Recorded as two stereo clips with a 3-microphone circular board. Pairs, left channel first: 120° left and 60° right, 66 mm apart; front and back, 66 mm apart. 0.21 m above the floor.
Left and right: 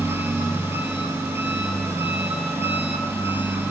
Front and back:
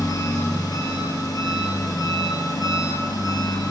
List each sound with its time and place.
0.0 s an engine running: 10° right, 3.5 m